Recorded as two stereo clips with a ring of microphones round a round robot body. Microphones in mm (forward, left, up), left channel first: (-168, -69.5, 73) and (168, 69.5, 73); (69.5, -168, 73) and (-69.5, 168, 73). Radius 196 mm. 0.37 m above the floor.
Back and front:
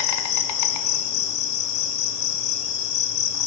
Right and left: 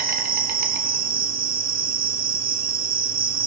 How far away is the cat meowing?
No cat meowing in this recording.